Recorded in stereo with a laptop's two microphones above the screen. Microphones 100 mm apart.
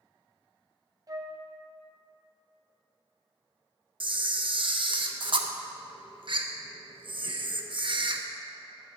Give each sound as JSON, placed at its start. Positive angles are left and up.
{"t": 1.1, "sound": "a flute", "side_deg": -35, "distance_m": 0.6}
{"t": 4.0, "sound": "a camera shutter", "side_deg": -55, "distance_m": 0.5}